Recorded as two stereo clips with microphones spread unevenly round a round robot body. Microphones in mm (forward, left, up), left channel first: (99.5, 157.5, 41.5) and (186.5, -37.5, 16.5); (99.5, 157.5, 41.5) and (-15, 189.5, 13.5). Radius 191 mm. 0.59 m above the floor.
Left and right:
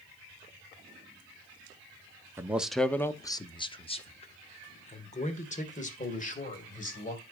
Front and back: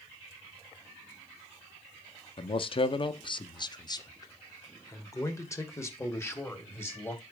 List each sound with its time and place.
2.4 s a man speaking: 15° right, 0.8 m; by 7.2 s 60° left, 3.5 m